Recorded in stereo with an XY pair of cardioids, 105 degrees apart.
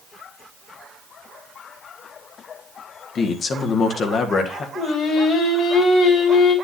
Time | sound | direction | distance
3.1 | a man speaking | 50° left | 1.7 m
4.8 | singing | 70° left | 3 m